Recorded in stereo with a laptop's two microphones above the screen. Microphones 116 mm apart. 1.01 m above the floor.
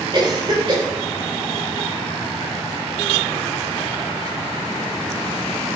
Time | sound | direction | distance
0.1 | a cough | 45° right (ahead or behind) | 5 m